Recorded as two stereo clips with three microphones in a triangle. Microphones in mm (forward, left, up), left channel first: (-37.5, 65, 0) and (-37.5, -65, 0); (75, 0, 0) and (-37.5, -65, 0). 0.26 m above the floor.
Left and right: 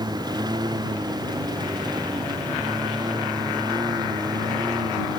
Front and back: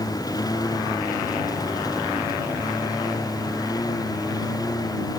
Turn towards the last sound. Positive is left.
turn(degrees=-30)